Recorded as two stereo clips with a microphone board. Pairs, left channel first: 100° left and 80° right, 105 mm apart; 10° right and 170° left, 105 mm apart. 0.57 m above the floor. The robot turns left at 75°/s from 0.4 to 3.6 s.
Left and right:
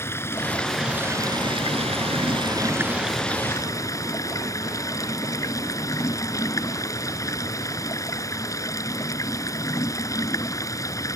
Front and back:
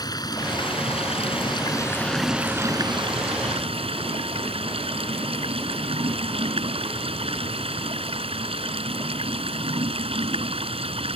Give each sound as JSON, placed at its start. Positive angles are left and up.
{"t": 0.0, "sound": "running water", "azimuth_deg": 35}